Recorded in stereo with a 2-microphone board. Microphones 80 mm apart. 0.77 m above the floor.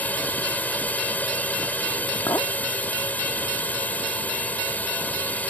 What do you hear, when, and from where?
0.0 s a drone: 20° left (ahead or behind)
2.3 s a clink: 45° left (ahead or behind)